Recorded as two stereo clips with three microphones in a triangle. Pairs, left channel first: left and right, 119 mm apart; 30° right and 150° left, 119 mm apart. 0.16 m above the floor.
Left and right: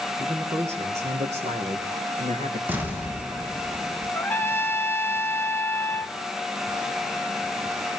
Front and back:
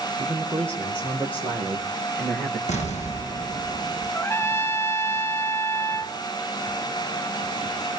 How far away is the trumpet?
About 1.0 m.